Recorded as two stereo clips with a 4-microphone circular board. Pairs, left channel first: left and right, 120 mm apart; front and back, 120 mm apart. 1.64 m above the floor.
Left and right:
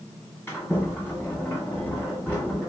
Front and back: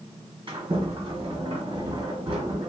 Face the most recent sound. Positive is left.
turn(degrees=160)